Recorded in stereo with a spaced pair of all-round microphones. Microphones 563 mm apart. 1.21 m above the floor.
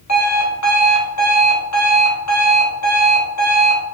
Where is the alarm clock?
30° left (ahead or behind), 0.8 m.